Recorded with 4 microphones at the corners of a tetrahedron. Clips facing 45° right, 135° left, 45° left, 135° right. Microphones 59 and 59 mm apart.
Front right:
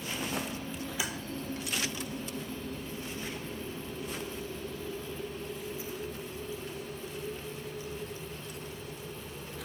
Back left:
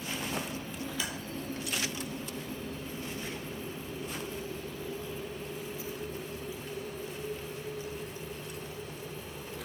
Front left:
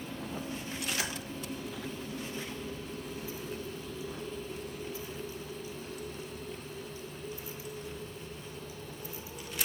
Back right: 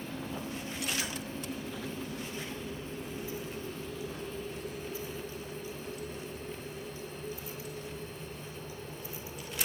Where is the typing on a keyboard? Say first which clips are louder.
Front right 2 dB, front left 2 dB; 30° left, 0.7 m.